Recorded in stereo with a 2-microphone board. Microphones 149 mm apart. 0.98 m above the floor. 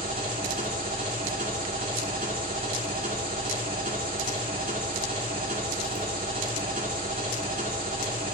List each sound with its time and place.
0.0 s an engine running: 70° right (ahead or behind), 2.5 m